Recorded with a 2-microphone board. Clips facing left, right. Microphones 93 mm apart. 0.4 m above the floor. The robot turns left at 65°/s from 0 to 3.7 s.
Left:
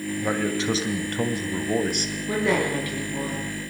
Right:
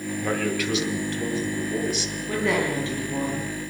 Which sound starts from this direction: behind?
A man speaking, at 0.2 s.